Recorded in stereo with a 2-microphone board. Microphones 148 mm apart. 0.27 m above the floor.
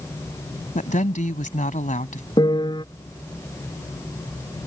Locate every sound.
0.8 s a woman speaking: 55° left (ahead or behind)
2.4 s a piano: 30° left (ahead or behind)